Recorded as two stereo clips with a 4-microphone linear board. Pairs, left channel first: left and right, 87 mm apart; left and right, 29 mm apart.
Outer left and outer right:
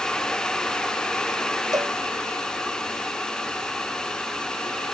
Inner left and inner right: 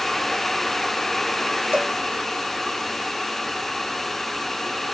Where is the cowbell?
45° right (ahead or behind).